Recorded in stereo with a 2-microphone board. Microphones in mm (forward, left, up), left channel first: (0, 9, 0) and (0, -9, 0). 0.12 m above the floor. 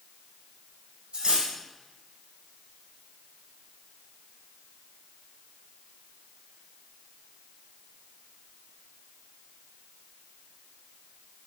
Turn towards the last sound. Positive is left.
turn(degrees=-70)  # may be behind; listen again after turning